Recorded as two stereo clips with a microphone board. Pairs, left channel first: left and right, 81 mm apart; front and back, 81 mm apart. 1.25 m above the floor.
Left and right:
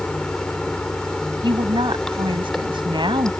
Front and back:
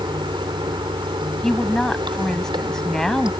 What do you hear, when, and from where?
0.0 s running water: 170° left
1.4 s a woman speaking: 85° right